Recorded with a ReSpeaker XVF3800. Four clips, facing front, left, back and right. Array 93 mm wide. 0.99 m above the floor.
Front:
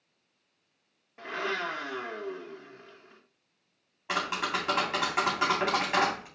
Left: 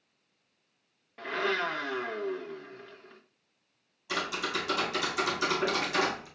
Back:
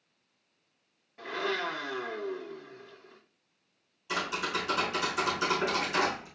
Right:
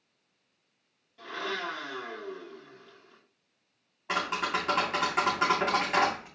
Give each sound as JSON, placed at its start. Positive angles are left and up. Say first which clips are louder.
{"t": 1.2, "sound": "a blender", "louder": "left 5 dB, even", "azimuth_deg": 65, "distance_m": 1.5}
{"t": 4.1, "sound": "tapping", "louder": "right 3 dB, front 2 dB", "azimuth_deg": -40, "distance_m": 3.5}